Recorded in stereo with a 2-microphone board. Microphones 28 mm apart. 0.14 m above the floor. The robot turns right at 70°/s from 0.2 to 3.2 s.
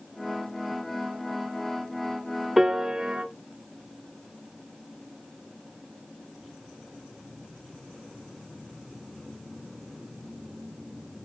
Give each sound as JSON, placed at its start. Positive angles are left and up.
{"t": 2.6, "sound": "a piano", "azimuth_deg": -170, "distance_m": 0.7}